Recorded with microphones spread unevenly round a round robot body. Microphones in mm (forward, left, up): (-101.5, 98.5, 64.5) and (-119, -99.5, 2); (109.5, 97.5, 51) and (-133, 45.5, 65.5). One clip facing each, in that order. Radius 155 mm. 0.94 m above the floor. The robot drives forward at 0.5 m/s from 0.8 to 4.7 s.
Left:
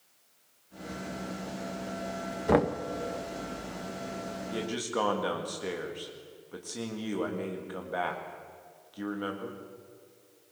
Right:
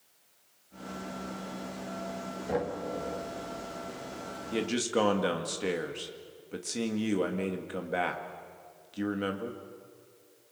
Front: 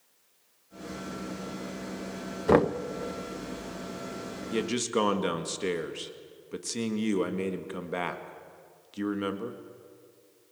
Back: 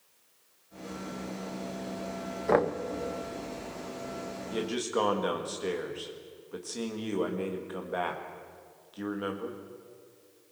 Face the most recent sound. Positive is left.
turn(degrees=-40)